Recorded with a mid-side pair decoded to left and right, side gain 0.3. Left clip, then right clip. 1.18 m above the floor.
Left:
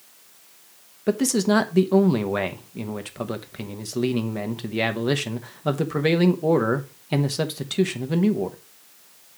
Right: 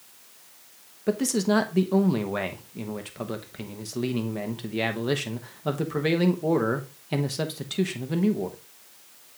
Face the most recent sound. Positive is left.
turn(degrees=40)